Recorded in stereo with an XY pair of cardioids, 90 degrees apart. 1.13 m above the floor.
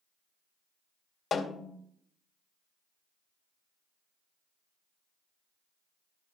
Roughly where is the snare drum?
Ahead left.